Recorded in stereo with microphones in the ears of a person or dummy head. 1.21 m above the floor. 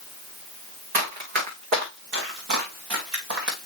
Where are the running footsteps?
50° right (ahead or behind), 4 m; by 3.5 s 65° right (ahead or behind), 3.5 m.